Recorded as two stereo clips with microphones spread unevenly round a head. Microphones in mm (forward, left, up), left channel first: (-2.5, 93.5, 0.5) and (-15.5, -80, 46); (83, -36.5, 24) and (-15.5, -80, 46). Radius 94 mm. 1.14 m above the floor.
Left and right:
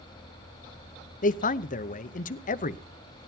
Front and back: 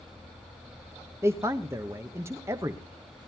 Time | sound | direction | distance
1.2 | a man speaking | 130° left | 0.8 m